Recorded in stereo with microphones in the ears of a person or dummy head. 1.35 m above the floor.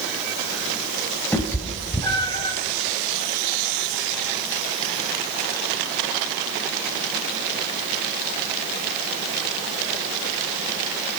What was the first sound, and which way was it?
A cat meowing, 10° left (ahead or behind).